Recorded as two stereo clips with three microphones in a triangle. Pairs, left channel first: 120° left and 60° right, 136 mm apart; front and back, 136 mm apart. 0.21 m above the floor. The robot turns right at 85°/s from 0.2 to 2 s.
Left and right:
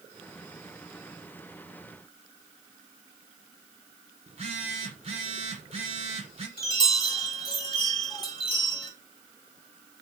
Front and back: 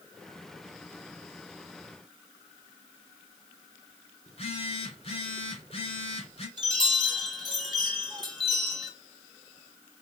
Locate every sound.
4.3 s a phone buzzing: 30° right, 1.5 m
6.6 s a chime: 150° left, 2.0 m